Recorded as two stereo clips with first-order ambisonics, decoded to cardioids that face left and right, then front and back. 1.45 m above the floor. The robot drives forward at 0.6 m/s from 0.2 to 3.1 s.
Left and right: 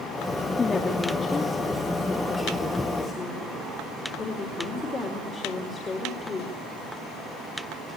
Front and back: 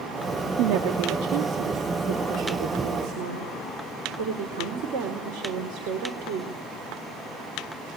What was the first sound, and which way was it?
A woman speaking, 165° left.